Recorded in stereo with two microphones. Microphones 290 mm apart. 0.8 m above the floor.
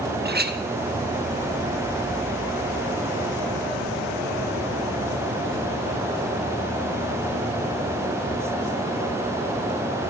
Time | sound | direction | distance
0.2 | a clink | 35° right (ahead or behind) | 0.7 m